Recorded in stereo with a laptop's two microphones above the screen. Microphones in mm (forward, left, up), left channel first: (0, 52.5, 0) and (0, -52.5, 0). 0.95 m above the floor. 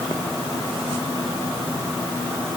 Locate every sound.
Only background noise.